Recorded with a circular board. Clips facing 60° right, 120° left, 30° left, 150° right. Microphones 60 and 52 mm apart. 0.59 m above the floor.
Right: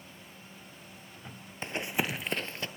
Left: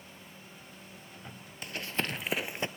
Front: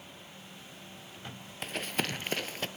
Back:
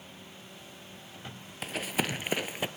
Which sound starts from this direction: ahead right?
Running footsteps, at 1.6 s.